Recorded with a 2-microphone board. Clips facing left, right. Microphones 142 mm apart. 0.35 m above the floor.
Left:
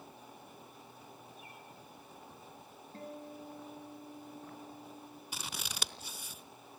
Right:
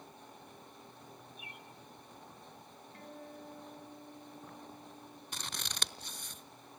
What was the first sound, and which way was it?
A bird, 80° right.